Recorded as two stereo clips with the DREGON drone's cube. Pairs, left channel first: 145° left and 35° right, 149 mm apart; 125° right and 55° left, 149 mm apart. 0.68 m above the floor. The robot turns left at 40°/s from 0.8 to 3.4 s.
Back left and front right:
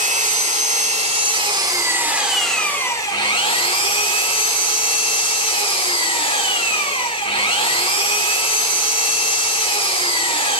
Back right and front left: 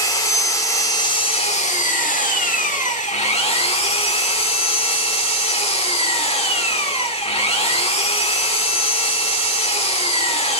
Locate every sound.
0.0 s an engine running: 60° right, 1.8 m; by 10.6 s 165° right, 1.8 m